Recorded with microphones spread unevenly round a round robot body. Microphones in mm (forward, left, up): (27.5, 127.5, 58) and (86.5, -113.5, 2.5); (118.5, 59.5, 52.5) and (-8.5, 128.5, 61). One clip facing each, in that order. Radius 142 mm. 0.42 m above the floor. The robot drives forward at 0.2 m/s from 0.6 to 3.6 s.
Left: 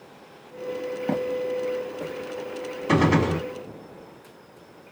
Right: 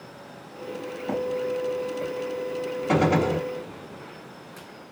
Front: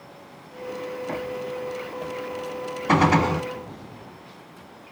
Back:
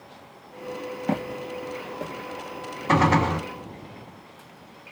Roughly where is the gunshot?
Ahead left.